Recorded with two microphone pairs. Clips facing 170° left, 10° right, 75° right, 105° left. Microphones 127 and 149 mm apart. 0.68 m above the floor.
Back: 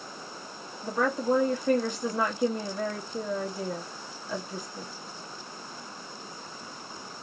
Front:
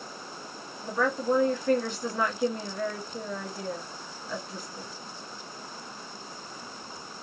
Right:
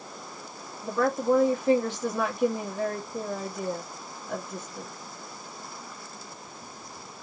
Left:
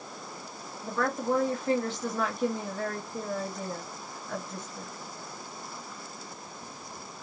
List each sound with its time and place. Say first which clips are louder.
0.8 s a woman speaking: even, right 5 dB; 130° right, 1.2 m